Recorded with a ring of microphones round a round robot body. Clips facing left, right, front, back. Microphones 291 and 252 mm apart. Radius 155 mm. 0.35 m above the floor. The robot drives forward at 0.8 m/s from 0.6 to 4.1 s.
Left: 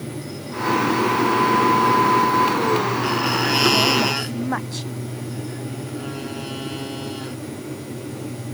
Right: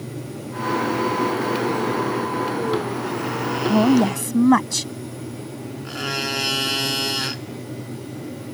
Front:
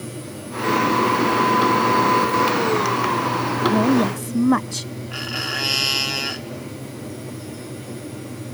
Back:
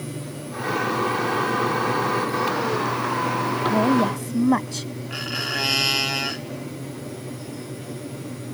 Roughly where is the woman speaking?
Right.